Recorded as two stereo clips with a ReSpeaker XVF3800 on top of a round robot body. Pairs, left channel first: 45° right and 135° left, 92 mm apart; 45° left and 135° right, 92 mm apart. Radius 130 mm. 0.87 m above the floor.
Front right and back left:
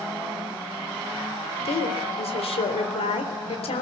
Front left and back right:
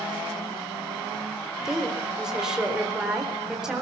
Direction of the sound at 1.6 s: 50° right.